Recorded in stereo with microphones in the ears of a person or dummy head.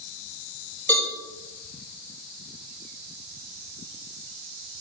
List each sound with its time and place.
0.9 s a cowbell: 10° left (ahead or behind), 2.5 m